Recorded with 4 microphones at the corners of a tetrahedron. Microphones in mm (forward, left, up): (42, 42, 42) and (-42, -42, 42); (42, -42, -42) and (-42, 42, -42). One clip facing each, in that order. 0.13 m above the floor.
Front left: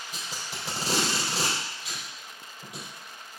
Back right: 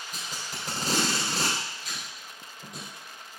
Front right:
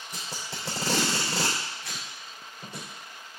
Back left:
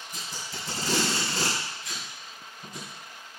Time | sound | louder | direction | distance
0.1 | tape being pulled | even, front right 1 dB | 35° right | 3.5 m